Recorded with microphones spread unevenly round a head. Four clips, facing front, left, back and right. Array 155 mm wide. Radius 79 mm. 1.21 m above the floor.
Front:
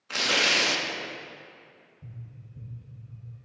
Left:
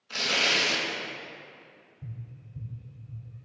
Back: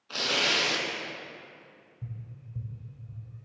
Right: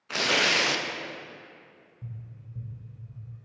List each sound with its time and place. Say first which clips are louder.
0.1 s tearing paper: right 3 dB, front 3 dB; 75° right, 0.6 m
2.0 s tapping: even, back 3 dB; 170° right, 1.6 m